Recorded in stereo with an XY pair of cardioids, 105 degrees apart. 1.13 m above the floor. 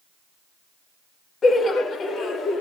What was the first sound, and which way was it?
Laughter, 45° left.